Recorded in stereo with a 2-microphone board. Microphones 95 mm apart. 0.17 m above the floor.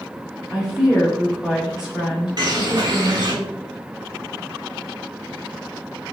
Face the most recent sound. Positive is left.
turn(degrees=-45)  # may be behind; listen again after turning